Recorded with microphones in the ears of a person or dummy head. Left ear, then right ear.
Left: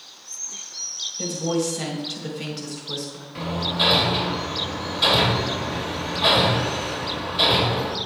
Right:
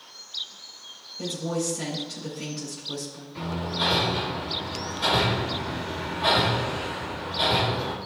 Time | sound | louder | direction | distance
1.2 | a woman speaking | left 3 dB | 10° left (ahead or behind) | 4 m
3.4 | hammering | left 5 dB | 25° left (ahead or behind) | 2 m